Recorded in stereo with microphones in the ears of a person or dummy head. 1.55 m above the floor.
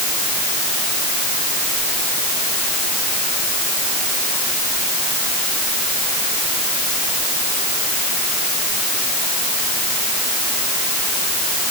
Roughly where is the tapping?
I don't hear tapping.